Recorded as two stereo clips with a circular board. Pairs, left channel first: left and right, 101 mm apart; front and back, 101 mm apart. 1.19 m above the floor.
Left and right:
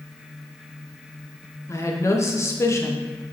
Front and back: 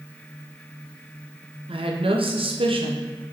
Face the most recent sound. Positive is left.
turn(degrees=150)